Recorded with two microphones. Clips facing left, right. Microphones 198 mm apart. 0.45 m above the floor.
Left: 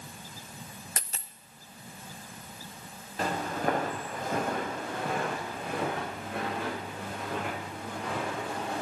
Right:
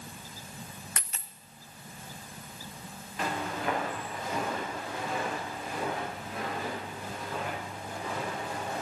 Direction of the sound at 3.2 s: 40° left (ahead or behind).